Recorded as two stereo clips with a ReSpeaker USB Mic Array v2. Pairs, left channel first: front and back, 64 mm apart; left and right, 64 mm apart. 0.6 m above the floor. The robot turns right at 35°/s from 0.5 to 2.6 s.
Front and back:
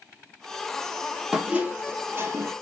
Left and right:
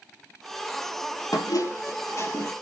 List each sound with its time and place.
1.3 s a squeak: 100° left, 1.6 m; by 2.5 s 145° left, 1.6 m